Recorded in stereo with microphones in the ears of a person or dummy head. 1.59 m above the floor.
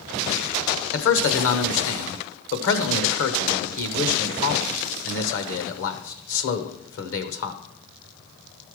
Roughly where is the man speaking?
Left.